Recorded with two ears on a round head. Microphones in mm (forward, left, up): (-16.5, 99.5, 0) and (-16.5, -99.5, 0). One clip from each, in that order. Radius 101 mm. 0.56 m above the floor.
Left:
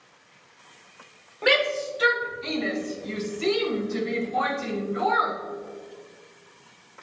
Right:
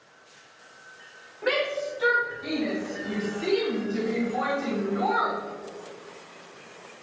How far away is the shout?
About 3 m.